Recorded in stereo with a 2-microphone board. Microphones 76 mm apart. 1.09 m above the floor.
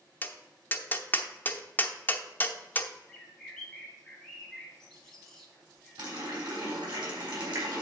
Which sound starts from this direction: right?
A running tap, at 6.0 s.